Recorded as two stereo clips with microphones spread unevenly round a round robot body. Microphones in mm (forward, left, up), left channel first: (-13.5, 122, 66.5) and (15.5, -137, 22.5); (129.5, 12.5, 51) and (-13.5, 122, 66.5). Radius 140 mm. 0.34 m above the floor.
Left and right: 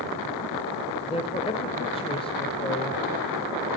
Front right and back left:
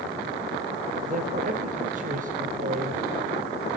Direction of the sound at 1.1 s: 170° left.